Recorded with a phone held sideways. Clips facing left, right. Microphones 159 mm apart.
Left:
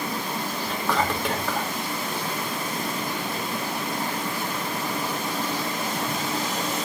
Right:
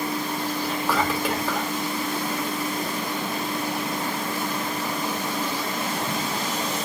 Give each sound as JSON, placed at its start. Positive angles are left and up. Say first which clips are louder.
{"t": 0.6, "sound": "whispering", "louder": "even", "side_deg": -5, "distance_m": 1.9}